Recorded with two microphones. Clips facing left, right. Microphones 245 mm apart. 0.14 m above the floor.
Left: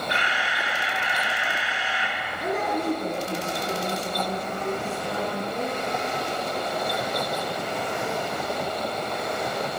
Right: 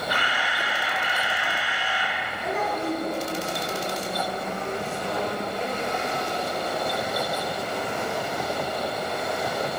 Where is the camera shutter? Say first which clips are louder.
Right 1 dB; 25° left (ahead or behind), 1.2 m.